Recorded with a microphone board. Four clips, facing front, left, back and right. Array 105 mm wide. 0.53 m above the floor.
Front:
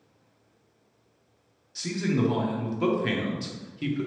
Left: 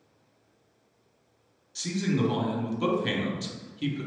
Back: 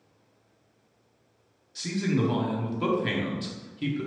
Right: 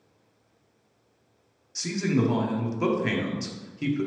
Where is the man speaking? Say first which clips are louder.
Right 2 dB, even; 75° right, 0.7 m.